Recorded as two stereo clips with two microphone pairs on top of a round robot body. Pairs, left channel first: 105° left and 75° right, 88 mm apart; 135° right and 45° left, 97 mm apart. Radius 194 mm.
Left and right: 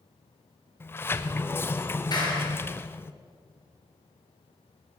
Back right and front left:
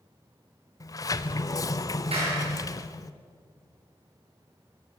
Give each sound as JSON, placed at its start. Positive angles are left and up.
{"t": 0.8, "sound": "a sliding door", "azimuth_deg": 170, "distance_m": 0.6}
{"t": 2.1, "sound": "a clap", "azimuth_deg": 65, "distance_m": 7.5}